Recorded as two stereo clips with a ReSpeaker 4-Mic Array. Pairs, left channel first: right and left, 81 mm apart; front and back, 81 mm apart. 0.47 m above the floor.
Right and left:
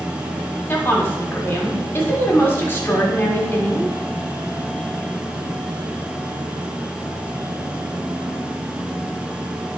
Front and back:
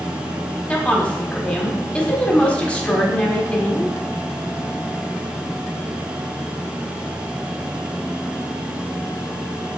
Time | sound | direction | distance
0.7 | a woman speaking | 60° right | 1.4 m